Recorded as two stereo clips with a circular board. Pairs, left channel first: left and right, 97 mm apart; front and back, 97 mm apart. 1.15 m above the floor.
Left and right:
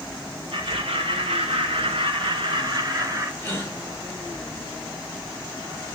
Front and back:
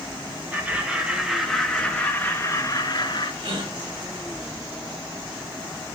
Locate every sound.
0.5 s laughter: 105° right, 2.5 m; by 3.3 s 35° right, 1.8 m
3.4 s a gasp: 160° left, 3.5 m